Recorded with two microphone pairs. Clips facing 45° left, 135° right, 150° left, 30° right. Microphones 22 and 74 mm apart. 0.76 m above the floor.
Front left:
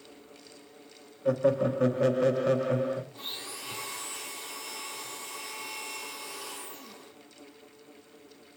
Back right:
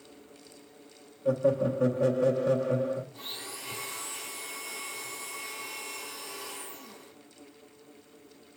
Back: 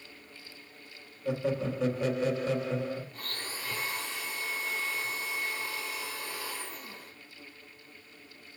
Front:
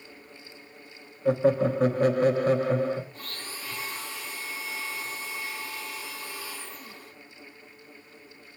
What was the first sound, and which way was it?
Laughter, straight ahead.